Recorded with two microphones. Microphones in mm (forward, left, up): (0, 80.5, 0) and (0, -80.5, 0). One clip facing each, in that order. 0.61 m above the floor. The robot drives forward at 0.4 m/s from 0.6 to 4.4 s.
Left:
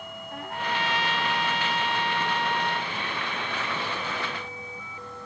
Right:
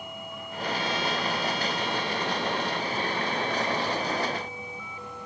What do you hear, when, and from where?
0.3 s a trumpet: 80° left; by 2.9 s 70° left (ahead or behind)